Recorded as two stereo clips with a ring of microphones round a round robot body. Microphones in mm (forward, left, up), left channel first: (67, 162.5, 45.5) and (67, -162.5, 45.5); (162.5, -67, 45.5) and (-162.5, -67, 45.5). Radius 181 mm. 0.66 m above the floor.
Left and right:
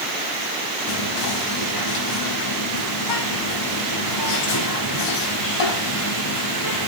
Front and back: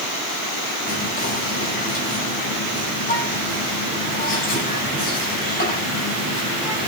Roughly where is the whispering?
Left.